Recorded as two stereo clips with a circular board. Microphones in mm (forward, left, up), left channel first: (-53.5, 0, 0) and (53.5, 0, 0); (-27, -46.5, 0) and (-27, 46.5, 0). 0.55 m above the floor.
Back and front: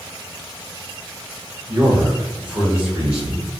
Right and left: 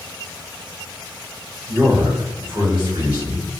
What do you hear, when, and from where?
1.7 s a man speaking: 60° left, 1.8 m; by 3.5 s 80° left, 2.5 m